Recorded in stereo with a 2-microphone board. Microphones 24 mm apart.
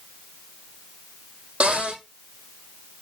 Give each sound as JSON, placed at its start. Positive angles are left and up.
{"t": 1.6, "sound": "a cupboard door", "side_deg": -75, "distance_m": 3.0}